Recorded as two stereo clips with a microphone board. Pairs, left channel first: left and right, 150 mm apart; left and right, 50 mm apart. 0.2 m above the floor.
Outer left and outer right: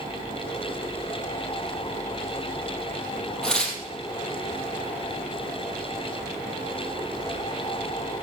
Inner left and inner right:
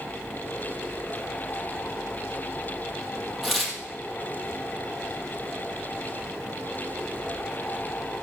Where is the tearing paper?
5° left (ahead or behind), 3 m.